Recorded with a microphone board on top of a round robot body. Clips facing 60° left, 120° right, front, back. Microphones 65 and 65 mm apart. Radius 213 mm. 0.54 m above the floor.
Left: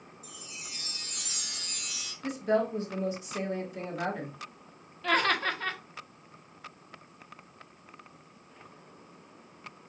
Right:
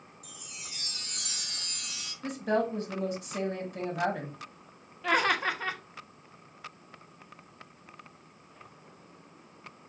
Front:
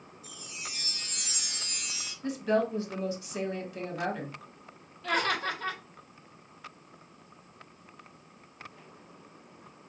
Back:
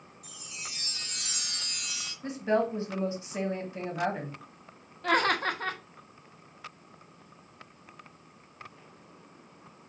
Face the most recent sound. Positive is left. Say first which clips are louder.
# even, back 3 dB
turn(degrees=165)